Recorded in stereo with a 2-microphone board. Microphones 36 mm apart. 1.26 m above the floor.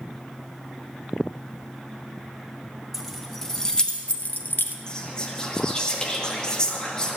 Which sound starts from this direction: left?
Whispering, at 4.9 s.